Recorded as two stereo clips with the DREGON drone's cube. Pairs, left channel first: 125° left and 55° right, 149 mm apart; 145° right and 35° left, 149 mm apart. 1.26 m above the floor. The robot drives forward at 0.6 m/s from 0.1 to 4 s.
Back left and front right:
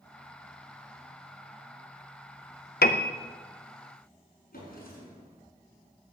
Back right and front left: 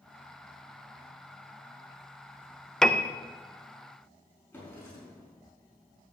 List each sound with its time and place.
2.8 s a piano: 130° left, 0.7 m; by 3.1 s 140° left, 0.8 m
4.5 s a drawer: 140° left, 5 m